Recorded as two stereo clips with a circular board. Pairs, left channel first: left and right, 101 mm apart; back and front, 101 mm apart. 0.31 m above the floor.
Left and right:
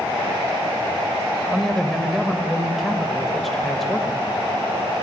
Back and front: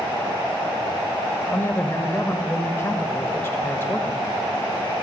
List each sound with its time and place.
1.5 s a man speaking: 175° left, 1.0 m